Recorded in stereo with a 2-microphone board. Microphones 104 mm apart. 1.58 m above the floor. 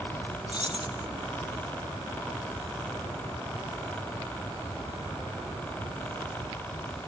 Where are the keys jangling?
50° left (ahead or behind).